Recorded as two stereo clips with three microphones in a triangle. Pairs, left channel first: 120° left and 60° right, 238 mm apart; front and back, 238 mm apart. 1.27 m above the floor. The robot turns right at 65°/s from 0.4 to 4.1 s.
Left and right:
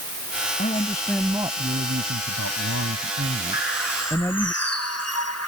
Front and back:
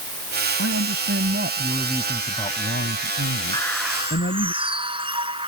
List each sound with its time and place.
0.6 s a man speaking: 175° left; by 4.5 s 40° left
3.5 s a bird: 75° left; by 5.5 s 110° left